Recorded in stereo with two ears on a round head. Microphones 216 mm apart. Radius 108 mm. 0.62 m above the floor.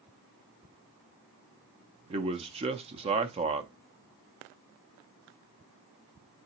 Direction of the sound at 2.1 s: 25° right (ahead or behind).